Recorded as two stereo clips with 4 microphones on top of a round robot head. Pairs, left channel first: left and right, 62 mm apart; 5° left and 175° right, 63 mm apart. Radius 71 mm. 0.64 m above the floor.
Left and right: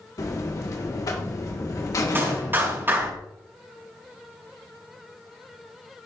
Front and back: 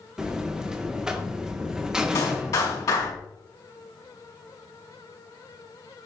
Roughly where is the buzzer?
Left.